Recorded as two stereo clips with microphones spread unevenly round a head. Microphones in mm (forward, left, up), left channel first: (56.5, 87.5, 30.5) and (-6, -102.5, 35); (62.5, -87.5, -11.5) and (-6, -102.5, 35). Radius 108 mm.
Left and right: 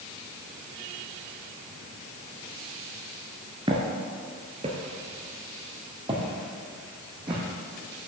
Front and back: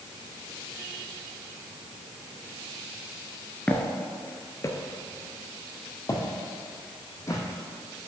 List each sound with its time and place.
3.7 s footsteps: 130° right, 1.1 m; by 7.4 s 40° right, 3.5 m